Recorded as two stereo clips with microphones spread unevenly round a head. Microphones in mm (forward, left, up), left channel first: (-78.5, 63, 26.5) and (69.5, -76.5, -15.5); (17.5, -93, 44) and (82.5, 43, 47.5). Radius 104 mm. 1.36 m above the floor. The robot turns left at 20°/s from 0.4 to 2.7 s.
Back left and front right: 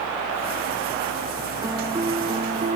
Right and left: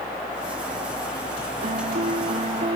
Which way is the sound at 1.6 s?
40° left.